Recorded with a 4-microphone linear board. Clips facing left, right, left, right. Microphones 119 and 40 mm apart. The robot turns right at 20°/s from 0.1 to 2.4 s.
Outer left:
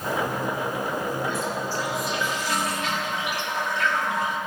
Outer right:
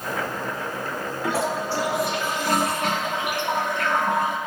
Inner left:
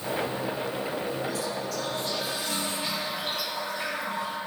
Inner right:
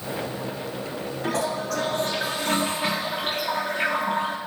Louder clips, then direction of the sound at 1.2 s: Outer right 3 dB, inner right 5 dB; 70° right (ahead or behind).